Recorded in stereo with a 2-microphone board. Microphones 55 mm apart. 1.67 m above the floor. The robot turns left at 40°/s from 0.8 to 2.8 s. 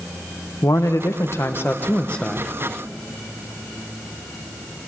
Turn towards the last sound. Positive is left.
turn(degrees=-5)